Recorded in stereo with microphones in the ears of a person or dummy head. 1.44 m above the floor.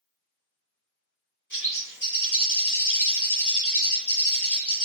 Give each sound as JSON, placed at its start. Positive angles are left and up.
{"t": 1.5, "sound": "a bird", "side_deg": 5, "distance_m": 1.6}